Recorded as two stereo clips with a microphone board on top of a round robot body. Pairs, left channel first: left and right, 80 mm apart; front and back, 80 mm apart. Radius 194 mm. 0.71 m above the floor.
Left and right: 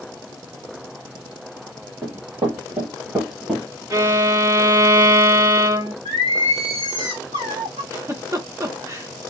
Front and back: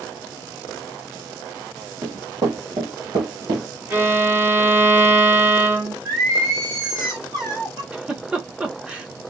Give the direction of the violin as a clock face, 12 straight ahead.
4 o'clock.